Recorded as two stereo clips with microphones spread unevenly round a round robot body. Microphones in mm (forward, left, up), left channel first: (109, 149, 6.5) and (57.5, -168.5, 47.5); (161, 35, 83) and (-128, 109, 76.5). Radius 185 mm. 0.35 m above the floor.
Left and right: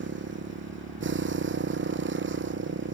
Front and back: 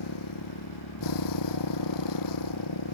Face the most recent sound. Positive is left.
turn(degrees=-45)